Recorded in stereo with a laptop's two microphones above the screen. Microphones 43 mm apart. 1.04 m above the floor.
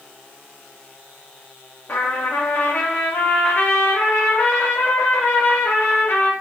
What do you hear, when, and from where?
1.9 s a trumpet: 55° left (ahead or behind), 0.7 m